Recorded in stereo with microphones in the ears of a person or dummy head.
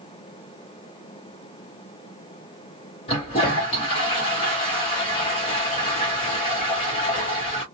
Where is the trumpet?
No trumpet in this recording.